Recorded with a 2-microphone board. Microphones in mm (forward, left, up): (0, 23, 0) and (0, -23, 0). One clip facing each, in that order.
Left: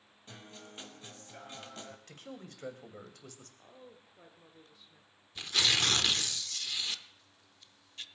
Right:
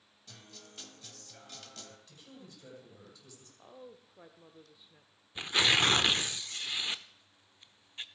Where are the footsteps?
No footsteps in this recording.